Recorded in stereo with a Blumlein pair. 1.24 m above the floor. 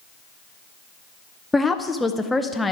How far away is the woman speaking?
About 0.6 m.